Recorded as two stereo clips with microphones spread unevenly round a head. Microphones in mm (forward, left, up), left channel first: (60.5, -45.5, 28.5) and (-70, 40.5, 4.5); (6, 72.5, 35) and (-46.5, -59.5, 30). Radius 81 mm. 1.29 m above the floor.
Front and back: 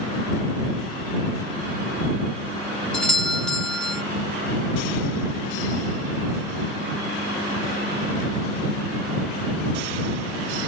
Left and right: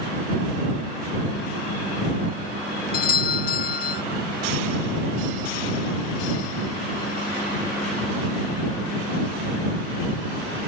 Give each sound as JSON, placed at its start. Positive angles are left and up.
{"t": 2.9, "sound": "a doorbell", "azimuth_deg": 50}